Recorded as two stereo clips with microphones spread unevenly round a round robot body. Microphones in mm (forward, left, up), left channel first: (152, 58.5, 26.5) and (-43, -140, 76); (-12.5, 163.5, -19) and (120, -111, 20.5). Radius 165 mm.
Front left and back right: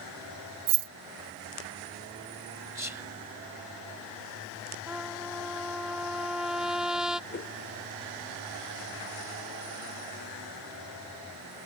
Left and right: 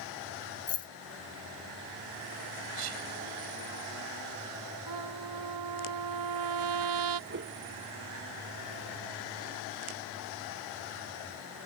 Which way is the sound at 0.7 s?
175° right.